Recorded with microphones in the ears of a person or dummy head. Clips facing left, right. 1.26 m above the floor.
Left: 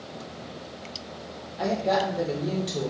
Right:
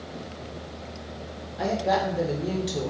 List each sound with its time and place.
1.6 s a woman speaking: centre (ahead or behind), 0.5 m